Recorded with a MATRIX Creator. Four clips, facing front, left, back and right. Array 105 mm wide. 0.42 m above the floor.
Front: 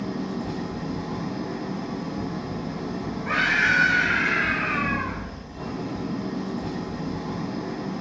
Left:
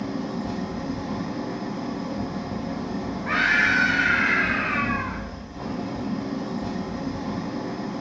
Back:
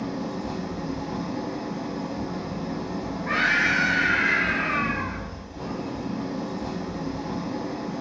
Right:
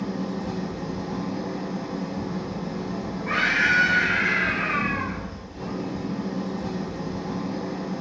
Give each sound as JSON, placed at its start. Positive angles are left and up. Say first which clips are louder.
{"t": 0.0, "sound": "an engine running", "louder": "even, front 1 dB", "azimuth_deg": 70, "distance_m": 1.5}
{"t": 3.2, "sound": "a scream", "louder": "left 1 dB, front 1 dB", "azimuth_deg": 90, "distance_m": 1.7}